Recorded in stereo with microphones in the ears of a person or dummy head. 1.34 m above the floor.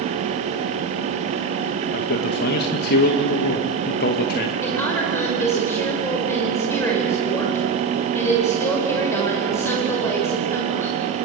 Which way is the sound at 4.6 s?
10° left (ahead or behind).